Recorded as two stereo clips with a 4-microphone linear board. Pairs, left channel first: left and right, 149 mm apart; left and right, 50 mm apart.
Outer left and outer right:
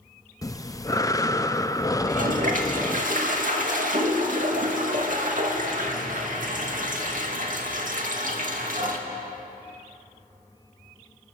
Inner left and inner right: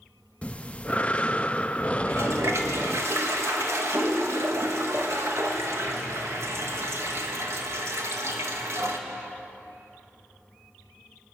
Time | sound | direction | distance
0.4 | breathing | 20° left (ahead or behind) | 0.6 m
2.0 | a toilet flushing | 60° right (ahead or behind) | 2.5 m